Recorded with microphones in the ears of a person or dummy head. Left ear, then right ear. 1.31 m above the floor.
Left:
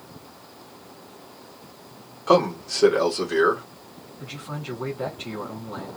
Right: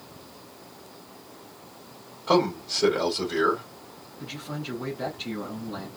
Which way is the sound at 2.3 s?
50° left (ahead or behind).